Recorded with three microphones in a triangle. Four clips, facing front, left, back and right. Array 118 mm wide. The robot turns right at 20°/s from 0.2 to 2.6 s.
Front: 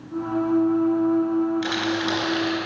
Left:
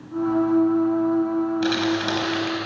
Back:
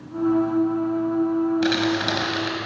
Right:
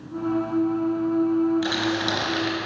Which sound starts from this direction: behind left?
Crumpling, at 1.6 s.